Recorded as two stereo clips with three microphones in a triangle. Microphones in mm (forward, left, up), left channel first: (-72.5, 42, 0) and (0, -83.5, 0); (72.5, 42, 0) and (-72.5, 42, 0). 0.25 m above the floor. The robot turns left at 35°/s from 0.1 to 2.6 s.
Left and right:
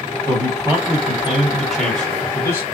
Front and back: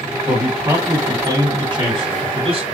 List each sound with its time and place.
0.3 s a man speaking: 95° right, 2.0 m; by 2.6 s straight behind, 2.0 m